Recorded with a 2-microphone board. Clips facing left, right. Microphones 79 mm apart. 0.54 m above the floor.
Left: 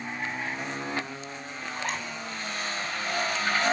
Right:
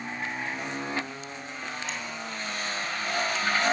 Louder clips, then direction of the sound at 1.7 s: Left 5 dB; 50° left (ahead or behind).